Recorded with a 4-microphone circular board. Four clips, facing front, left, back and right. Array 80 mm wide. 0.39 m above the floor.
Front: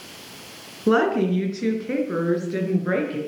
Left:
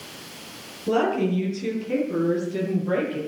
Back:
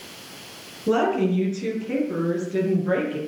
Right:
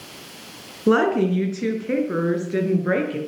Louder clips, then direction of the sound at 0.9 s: Right 4 dB, front 2 dB; 55° right.